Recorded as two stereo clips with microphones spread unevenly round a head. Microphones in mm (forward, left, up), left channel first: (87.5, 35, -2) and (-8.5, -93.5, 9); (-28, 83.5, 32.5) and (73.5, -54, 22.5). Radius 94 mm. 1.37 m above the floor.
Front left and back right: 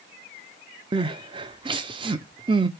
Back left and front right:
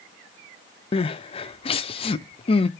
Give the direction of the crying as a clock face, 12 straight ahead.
6 o'clock.